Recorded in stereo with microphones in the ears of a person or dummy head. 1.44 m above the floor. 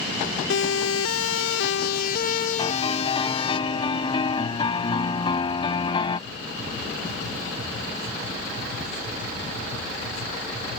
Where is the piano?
30° left (ahead or behind).